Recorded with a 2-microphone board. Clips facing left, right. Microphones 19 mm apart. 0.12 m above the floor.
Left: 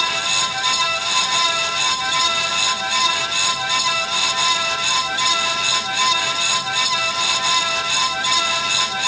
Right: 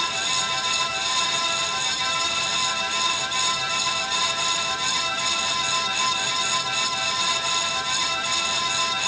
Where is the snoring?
No snoring in this recording.